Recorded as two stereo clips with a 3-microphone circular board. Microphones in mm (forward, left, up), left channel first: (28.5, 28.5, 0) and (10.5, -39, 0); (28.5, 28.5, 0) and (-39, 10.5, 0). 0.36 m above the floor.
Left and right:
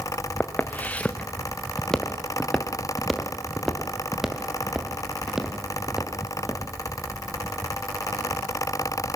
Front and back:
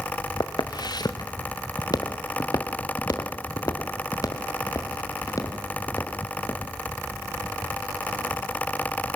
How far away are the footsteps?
About 1.6 m.